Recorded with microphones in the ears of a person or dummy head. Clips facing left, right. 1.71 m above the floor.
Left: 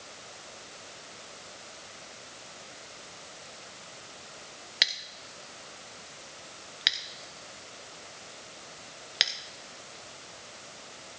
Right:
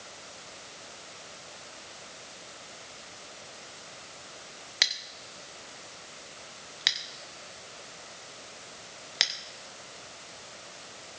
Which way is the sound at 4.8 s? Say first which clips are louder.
Even; 5° left (ahead or behind).